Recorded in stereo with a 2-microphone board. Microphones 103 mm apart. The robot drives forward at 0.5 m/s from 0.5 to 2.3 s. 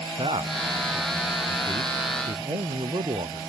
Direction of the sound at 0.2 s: 60° right (ahead or behind).